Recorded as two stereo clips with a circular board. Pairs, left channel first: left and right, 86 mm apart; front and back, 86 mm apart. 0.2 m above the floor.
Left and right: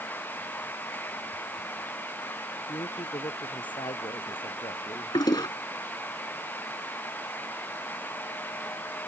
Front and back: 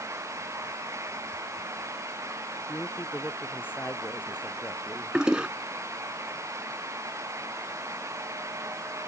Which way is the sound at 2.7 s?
65° left.